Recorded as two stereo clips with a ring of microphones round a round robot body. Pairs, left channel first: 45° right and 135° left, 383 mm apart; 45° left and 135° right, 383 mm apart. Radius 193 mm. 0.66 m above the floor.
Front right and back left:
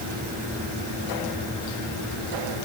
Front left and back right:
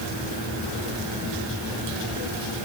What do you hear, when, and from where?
Only background noise.